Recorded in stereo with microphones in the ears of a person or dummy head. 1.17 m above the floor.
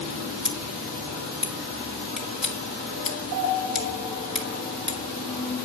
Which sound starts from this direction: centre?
Scissors, at 0.4 s.